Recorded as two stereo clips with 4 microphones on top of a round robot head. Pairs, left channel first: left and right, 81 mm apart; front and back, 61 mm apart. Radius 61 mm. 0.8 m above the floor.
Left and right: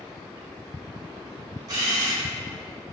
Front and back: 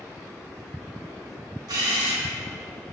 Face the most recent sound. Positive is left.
turn(degrees=-145)